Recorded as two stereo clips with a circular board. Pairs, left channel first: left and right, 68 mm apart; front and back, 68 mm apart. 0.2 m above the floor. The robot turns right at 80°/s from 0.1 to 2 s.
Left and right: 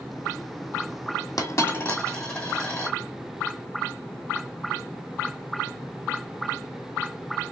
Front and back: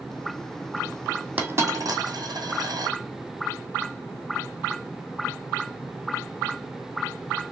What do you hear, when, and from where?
1.4 s a dropped coin: 110° left, 1.8 m; by 3.0 s 160° left, 1.8 m